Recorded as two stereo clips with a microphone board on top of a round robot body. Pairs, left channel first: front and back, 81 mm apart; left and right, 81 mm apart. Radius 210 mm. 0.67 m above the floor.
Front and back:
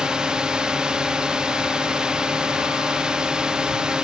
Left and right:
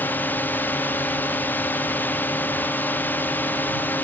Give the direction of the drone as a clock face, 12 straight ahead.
8 o'clock.